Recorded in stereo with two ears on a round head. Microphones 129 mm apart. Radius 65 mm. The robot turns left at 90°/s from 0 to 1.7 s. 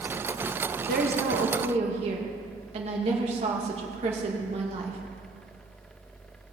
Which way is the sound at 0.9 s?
60° right.